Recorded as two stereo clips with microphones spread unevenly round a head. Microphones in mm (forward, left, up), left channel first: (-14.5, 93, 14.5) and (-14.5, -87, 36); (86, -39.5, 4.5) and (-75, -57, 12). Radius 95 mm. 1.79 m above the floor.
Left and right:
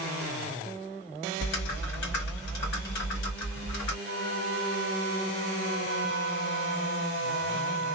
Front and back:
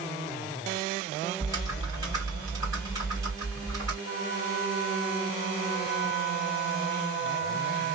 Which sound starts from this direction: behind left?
Typing on a keyboard, at 1.4 s.